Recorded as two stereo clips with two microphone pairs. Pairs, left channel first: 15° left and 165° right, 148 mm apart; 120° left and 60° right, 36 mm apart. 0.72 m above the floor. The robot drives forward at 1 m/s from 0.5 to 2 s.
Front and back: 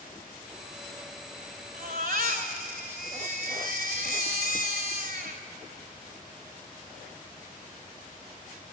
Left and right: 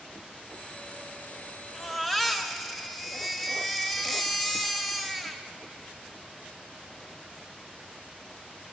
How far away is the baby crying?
About 2 m.